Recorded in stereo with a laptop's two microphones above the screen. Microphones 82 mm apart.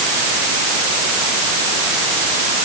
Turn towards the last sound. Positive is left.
No sound to turn to.